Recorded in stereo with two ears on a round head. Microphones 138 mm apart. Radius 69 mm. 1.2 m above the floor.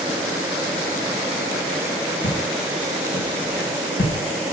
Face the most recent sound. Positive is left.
turn(degrees=65)  # may be behind; listen again after turning